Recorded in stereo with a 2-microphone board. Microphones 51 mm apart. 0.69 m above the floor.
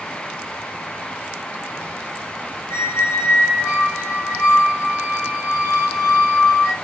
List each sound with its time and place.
2.7 s a squeak: 75° left (ahead or behind), 1.8 m